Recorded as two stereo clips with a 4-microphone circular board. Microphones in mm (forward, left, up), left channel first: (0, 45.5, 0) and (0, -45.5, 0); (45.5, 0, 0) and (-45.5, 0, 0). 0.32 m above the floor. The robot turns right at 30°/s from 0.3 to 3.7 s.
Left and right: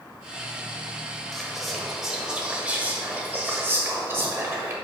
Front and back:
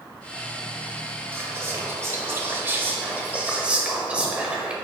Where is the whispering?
170° left, 1.1 m; by 4.7 s 120° right, 1.1 m.